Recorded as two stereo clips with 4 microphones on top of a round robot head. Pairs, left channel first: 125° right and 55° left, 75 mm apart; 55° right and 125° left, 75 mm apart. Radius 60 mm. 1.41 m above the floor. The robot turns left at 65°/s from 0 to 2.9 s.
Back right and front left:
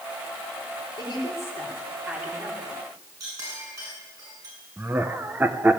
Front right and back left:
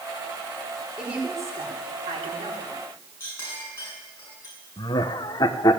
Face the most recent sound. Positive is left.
turn(degrees=-15)